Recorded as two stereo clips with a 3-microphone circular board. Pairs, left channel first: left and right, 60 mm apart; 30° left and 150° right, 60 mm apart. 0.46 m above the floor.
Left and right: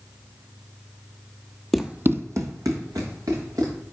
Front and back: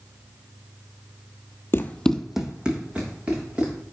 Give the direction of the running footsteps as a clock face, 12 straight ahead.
12 o'clock.